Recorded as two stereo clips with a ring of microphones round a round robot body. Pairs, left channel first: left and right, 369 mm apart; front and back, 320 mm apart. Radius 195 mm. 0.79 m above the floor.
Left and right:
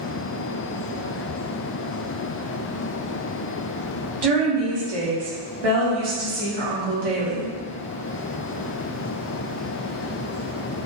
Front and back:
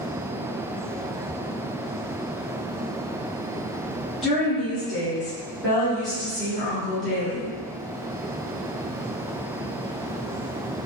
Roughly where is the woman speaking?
Right.